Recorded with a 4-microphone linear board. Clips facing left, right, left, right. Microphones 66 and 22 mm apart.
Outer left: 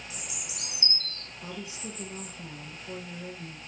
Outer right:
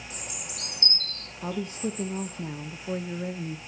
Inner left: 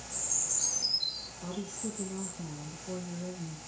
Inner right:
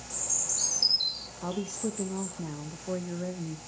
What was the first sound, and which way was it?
A bird, 50° right (ahead or behind).